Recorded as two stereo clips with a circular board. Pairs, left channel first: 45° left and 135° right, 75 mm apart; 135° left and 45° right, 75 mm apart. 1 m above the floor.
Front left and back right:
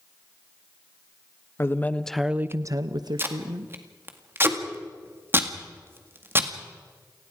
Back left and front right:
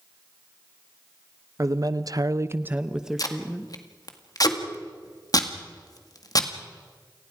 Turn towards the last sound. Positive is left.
turn(degrees=170)